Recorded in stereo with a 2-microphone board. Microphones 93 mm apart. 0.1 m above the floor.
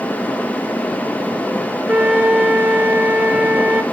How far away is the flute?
About 1.0 m.